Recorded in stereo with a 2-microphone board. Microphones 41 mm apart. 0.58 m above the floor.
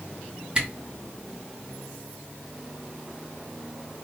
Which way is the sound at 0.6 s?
25° right (ahead or behind).